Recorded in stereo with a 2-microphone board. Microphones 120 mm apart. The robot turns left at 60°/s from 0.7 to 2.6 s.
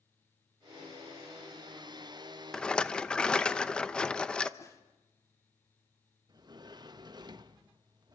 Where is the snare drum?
25° left (ahead or behind), 1.8 m.